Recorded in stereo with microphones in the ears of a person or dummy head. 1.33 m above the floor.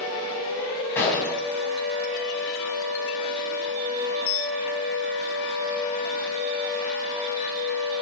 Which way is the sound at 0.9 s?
10° left (ahead or behind).